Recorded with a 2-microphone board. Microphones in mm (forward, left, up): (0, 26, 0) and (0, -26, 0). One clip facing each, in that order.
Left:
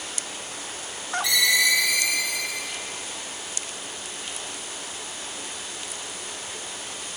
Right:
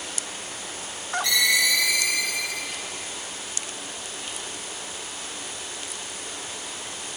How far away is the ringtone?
About 2 m.